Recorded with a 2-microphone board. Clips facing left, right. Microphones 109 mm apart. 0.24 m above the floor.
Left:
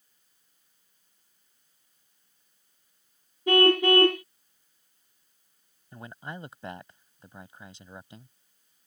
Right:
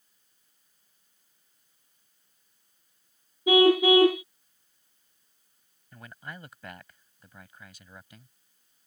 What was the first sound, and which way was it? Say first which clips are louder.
A car horn: right 2 dB; 5° right (ahead or behind).